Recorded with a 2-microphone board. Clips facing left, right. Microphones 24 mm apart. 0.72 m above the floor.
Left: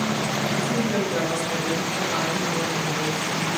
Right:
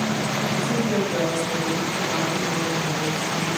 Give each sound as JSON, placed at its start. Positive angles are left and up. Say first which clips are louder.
{"t": 0.5, "sound": "a woman speaking", "louder": "right 2 dB", "side_deg": 0, "distance_m": 4.5}